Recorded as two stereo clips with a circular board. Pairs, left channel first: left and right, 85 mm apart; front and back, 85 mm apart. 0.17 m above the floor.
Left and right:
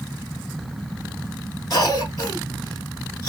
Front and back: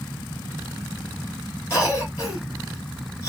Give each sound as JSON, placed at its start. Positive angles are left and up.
{"t": 1.7, "sound": "a cough", "azimuth_deg": 50, "distance_m": 3.0}